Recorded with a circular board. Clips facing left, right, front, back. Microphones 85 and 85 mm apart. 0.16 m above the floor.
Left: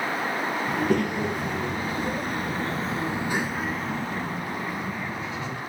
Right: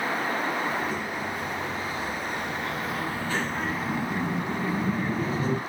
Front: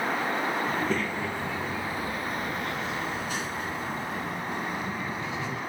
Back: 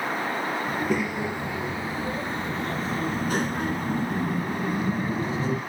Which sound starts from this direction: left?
A child speaking, at 0.7 s.